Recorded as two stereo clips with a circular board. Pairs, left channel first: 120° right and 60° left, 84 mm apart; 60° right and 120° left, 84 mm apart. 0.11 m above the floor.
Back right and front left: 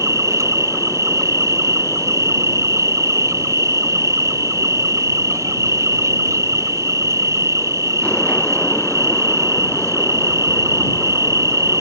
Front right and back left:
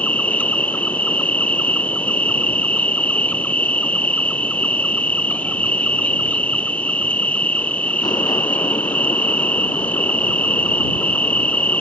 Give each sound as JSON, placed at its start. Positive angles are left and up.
{"t": 0.0, "sound": "an insect", "azimuth_deg": 10}